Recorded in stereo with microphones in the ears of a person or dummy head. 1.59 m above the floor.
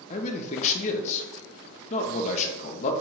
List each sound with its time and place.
0.1 s a man speaking: 35° left (ahead or behind), 0.7 m